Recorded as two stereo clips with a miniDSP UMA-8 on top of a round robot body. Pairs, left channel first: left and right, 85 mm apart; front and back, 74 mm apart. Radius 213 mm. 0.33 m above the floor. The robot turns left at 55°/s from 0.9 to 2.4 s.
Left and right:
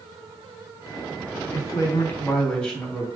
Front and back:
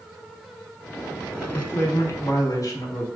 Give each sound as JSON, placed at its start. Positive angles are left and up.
{"t": 1.5, "sound": "a man speaking", "azimuth_deg": 60, "distance_m": 1.2}